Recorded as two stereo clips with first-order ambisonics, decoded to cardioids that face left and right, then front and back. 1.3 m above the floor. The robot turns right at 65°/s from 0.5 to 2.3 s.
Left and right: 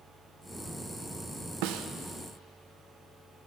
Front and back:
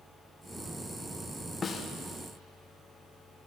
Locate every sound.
1.6 s a snare drum: 75° right, 0.7 m; by 1.9 s 60° right, 0.7 m